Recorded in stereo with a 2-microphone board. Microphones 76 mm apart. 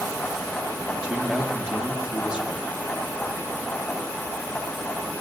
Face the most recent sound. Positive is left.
turn(degrees=-15)  # may be behind; listen again after turning